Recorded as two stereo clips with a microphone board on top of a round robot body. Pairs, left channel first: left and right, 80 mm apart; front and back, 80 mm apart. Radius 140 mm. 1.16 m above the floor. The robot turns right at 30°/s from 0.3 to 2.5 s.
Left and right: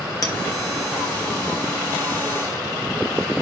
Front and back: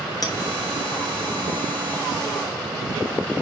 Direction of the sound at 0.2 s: 45° left.